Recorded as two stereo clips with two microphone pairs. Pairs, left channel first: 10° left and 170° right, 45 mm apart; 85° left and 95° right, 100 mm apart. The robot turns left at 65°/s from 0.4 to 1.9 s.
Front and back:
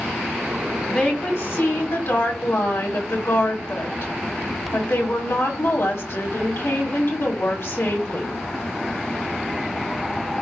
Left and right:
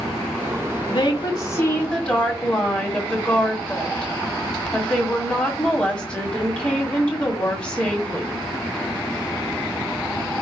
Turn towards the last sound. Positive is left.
turn(degrees=5)